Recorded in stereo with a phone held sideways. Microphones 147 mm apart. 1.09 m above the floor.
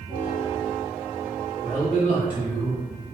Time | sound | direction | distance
1.6 | a man speaking | 50° left (ahead or behind) | 1.6 m